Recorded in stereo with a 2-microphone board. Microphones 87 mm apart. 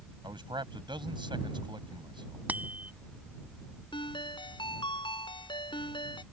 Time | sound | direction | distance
0.2 | a man speaking | 70° right (ahead or behind) | ?
2.5 | a bicycle bell | 20° right (ahead or behind) | ?
3.9 | a ringtone | 70° left (ahead or behind) | ?